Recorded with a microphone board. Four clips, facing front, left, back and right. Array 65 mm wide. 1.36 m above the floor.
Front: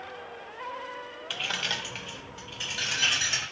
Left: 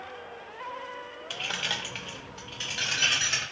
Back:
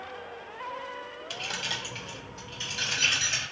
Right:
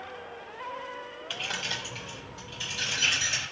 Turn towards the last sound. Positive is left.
turn(degrees=75)